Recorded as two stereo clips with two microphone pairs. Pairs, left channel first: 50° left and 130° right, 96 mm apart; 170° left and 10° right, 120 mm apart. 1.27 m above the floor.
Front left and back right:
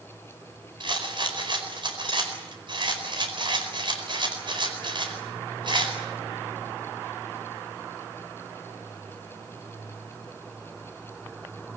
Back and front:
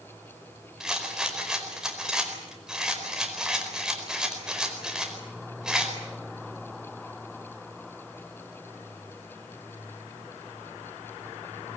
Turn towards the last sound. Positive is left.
turn(degrees=-95)